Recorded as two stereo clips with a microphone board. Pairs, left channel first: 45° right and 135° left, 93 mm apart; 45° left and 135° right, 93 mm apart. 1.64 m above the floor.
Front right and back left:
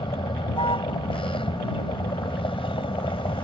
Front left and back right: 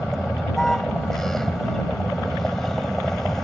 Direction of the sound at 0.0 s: 40° right.